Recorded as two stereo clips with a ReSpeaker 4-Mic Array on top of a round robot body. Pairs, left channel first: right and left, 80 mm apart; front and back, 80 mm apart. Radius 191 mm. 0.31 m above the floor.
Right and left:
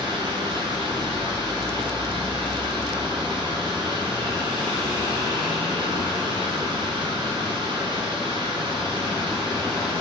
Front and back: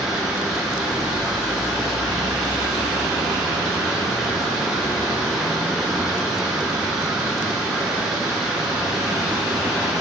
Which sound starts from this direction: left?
Running water, at 0.0 s.